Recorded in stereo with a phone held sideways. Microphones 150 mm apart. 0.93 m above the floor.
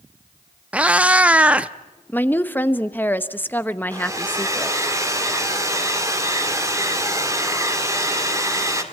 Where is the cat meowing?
10° right (ahead or behind), 0.6 m.